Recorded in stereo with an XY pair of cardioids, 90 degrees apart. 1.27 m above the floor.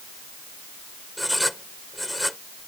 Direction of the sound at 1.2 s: 5° left.